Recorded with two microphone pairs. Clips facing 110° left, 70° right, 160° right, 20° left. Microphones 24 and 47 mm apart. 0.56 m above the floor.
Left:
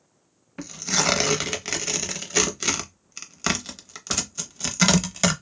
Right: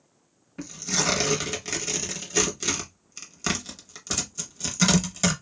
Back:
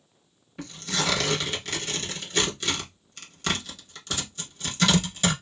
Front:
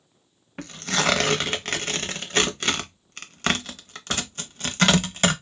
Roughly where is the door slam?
I don't hear a door slam.